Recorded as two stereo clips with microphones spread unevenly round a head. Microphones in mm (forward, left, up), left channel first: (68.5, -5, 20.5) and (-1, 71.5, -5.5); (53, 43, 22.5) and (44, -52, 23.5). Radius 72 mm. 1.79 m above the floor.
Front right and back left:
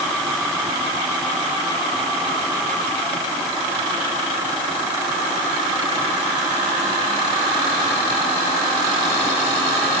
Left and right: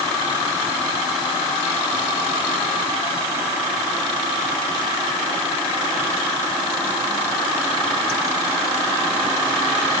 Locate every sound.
Only background noise.